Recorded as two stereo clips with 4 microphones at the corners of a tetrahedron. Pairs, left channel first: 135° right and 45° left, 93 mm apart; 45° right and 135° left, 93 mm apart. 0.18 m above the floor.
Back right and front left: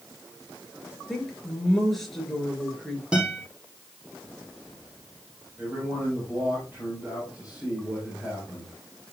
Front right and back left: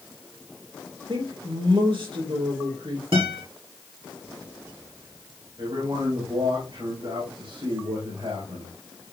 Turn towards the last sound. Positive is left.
turn(degrees=120)